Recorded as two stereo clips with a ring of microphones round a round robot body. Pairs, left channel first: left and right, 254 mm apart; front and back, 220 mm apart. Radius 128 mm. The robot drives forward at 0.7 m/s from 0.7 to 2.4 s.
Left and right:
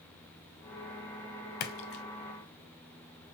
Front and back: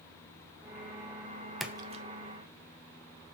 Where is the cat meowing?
I don't hear a cat meowing.